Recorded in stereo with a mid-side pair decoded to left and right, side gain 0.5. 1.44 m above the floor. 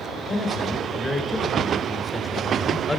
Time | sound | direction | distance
0.3 | a man speaking | 15° left | 5.5 m